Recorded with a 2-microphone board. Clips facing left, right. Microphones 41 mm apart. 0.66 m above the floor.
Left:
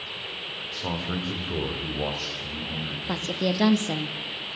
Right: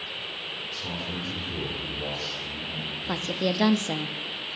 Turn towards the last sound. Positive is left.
turn(degrees=-5)  # may be behind; listen again after turning